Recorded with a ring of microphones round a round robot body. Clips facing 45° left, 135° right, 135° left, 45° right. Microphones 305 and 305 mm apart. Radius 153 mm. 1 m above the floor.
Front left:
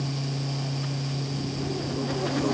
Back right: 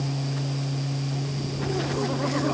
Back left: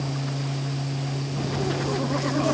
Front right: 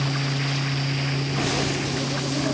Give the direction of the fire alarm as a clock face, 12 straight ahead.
No fire alarm in this recording.